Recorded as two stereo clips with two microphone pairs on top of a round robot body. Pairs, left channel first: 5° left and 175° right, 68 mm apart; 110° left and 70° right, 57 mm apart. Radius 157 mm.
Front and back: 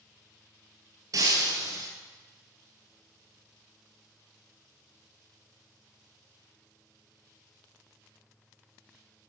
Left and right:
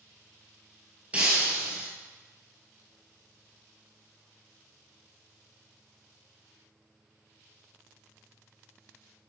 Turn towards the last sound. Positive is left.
turn(degrees=-140)